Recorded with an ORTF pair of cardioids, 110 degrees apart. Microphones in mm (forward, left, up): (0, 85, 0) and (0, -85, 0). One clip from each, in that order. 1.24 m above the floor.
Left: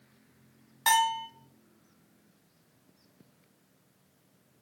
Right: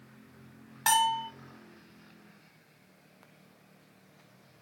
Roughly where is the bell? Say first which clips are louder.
Left 1 dB; ahead.